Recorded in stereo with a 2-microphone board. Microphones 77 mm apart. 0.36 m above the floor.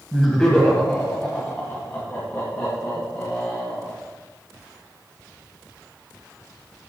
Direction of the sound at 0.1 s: 5° left (ahead or behind).